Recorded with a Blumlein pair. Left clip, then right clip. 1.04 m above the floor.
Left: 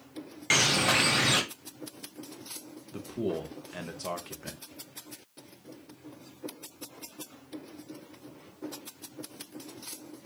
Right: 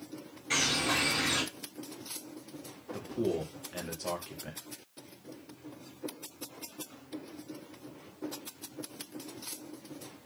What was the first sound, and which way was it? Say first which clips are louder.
A bird: left 5 dB; 50° left.